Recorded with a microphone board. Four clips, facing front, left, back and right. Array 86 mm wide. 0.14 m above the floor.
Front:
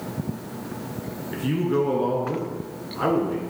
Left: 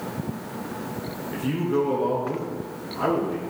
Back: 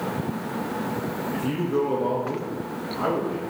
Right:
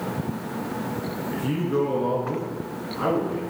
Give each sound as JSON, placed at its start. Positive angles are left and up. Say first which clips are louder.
{"t": 1.3, "sound": "a man speaking", "louder": "left 1 dB, front 3 dB", "azimuth_deg": 0, "distance_m": 1.5}